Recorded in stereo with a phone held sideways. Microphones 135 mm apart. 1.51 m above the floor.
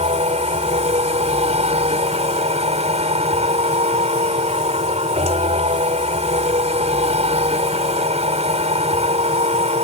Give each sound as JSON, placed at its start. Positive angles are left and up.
{"t": 0.0, "sound": "a machine running", "side_deg": -55}